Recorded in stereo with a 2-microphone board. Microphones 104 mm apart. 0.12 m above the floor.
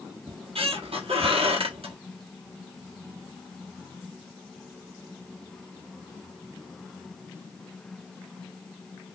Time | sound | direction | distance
0.3 | a squeak | 70° right (ahead or behind) | 0.9 m